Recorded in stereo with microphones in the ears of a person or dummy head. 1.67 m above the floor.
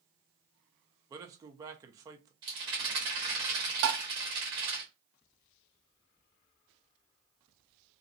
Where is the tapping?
65° right (ahead or behind), 0.8 m.